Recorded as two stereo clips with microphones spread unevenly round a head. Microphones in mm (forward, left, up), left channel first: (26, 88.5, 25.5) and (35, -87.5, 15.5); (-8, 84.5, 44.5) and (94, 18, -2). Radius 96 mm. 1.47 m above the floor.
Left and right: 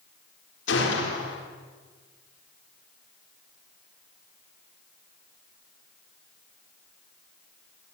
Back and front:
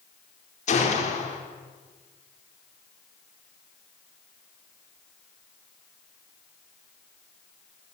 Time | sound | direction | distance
0.7 | a gunshot | 125° left | 4.5 m